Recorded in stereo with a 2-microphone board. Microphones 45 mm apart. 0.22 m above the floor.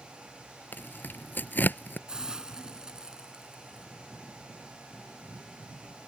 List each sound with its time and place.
0.7 s tearing paper: 40° left (ahead or behind)
2.1 s a hiss: 15° right (ahead or behind)